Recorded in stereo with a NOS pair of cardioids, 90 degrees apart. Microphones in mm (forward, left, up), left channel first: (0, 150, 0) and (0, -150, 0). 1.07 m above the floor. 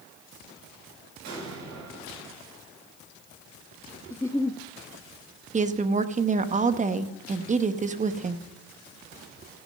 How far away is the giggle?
About 0.7 m.